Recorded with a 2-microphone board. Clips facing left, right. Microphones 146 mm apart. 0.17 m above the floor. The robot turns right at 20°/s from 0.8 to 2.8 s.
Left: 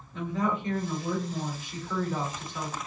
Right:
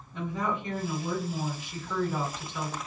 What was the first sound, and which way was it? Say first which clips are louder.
A woman speaking: left 2 dB; 30° right.